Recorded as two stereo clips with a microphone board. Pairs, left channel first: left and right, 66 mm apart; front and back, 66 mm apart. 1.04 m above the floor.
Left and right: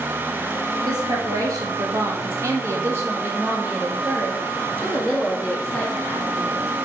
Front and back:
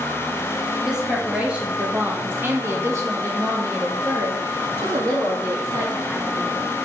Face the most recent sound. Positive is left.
turn(degrees=165)